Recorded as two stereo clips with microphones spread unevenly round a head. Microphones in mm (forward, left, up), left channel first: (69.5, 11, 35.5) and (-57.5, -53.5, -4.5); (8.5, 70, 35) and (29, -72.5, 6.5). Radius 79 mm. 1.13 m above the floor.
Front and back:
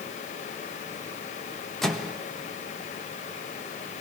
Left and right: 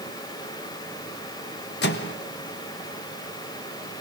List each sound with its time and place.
1.8 s a microwave: 120° left, 1.2 m